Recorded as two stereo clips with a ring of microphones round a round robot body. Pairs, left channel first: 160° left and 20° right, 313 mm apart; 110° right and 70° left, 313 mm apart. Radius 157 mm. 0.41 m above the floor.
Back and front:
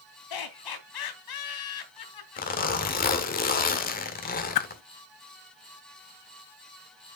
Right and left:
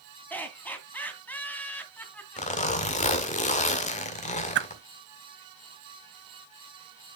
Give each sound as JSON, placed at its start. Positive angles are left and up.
{"t": 0.3, "sound": "laughter", "azimuth_deg": 165, "distance_m": 2.5}
{"t": 2.4, "sound": "a zipper", "azimuth_deg": -165, "distance_m": 1.5}
{"t": 4.5, "sound": "a whoosh", "azimuth_deg": 125, "distance_m": 0.5}